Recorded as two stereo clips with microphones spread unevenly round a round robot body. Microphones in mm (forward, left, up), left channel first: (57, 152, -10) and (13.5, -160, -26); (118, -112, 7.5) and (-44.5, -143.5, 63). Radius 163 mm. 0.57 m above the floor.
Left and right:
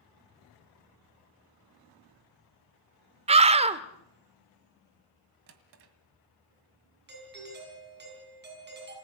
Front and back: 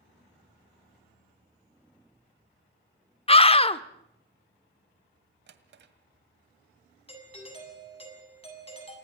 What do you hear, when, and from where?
3.3 s a scream: 30° right, 1.3 m
5.5 s a drawer: 155° right, 1.8 m
7.1 s a doorbell: 40° right, 7 m